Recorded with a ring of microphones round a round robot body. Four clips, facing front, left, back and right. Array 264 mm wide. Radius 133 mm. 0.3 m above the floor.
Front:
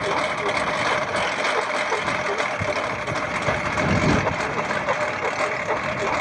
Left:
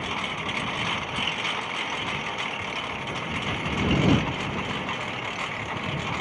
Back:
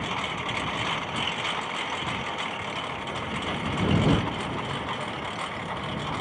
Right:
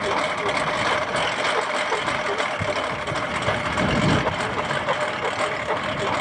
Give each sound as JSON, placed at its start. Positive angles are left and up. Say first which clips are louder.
{"t": 0.0, "sound": "a lawn mower", "louder": "right 9 dB, front 8 dB", "azimuth_deg": -45}